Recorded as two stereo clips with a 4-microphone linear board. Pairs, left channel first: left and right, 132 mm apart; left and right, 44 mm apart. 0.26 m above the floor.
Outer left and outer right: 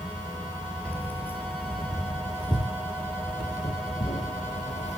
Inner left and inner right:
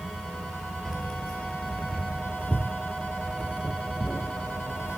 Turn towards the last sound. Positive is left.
turn(degrees=60)  # may be behind; listen again after turning